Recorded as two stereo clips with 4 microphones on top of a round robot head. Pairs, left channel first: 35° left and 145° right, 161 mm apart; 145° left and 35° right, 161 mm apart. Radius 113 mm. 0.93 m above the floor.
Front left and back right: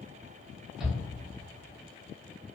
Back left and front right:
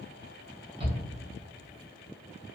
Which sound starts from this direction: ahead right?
A shout, at 0.8 s.